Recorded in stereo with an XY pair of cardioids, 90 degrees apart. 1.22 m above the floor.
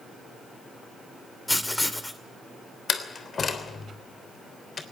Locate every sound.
1.5 s writing: 10° left, 2.5 m
2.9 s a door slam: 50° left, 3 m